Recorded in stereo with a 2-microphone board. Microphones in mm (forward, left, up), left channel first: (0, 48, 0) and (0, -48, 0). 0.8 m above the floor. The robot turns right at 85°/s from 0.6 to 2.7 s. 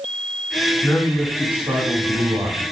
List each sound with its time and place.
0.8 s a man speaking: 140° left, 0.9 m; by 2.6 s 65° right, 0.9 m